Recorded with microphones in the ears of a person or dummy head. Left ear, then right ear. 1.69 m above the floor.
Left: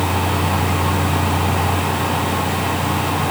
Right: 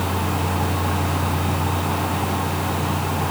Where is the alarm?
No alarm in this recording.